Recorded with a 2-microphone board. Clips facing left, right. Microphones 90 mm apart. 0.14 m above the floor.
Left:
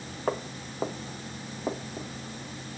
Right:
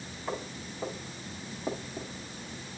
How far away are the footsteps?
About 1.4 m.